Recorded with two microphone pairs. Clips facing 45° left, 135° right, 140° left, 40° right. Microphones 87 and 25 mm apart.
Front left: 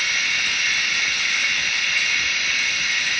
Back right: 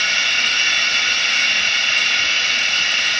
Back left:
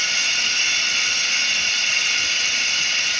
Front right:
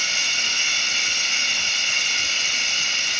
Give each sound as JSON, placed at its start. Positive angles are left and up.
{"t": 0.0, "sound": "running water", "azimuth_deg": -135, "distance_m": 0.8}